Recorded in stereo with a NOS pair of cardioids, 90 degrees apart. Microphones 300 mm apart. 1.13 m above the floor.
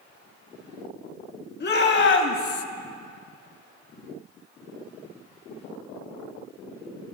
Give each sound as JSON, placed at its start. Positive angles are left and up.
{"t": 1.6, "sound": "a shout", "azimuth_deg": 35, "distance_m": 1.9}